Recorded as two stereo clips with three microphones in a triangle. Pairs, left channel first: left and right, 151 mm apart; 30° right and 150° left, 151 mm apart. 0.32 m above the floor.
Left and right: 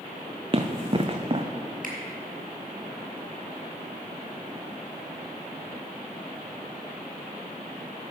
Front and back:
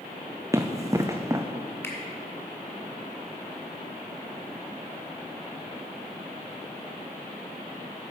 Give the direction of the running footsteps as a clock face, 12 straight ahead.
5 o'clock.